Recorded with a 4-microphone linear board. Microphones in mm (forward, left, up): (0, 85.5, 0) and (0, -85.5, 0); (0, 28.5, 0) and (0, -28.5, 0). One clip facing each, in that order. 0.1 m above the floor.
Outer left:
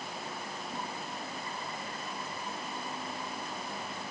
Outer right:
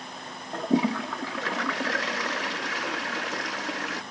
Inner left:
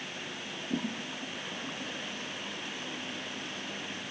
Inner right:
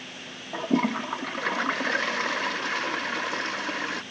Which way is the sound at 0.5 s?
85° right.